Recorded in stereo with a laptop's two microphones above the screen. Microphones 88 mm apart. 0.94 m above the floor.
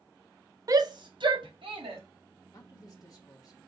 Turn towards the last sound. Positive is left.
turn(degrees=45)  # may be behind; listen again after turning